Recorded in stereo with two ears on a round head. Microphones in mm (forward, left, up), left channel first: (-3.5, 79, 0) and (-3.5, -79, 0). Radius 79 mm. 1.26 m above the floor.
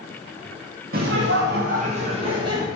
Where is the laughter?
55° right (ahead or behind), 1.0 m; by 2.7 s 25° right (ahead or behind), 2 m.